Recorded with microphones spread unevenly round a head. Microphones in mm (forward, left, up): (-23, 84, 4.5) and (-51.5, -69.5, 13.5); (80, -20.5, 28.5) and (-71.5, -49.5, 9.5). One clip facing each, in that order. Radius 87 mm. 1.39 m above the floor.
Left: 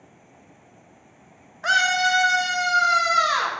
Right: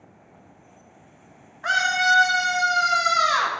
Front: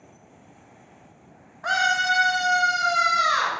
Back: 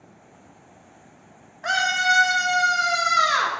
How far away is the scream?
About 1.5 m.